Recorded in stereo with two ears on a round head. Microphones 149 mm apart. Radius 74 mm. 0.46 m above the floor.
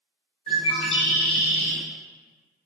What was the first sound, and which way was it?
A bird, 35° left (ahead or behind).